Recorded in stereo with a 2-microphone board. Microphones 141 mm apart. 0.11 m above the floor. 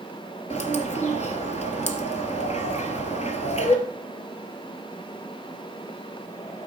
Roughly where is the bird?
Left.